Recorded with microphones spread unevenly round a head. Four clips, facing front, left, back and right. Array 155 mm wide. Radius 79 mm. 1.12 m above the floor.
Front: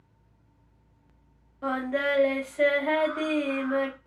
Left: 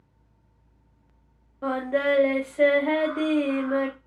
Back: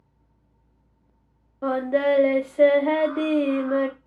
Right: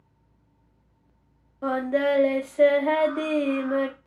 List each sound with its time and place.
1.6 s singing: straight behind, 0.6 m